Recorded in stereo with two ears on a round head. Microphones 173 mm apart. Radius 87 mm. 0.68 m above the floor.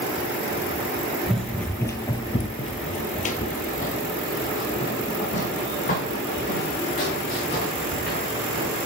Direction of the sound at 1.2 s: Centre (ahead or behind).